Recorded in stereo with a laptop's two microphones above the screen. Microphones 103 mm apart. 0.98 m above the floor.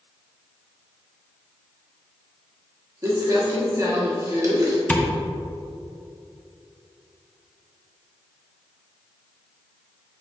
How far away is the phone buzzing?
I don't hear a phone buzzing.